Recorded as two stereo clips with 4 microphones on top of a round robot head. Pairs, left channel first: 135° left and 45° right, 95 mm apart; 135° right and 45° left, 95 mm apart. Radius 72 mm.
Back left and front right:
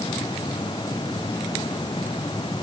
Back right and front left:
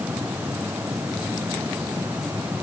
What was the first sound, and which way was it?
Only background noise.